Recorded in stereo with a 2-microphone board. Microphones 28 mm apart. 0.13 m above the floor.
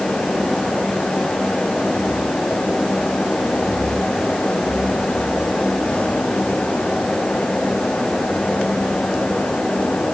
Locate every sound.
Only background noise.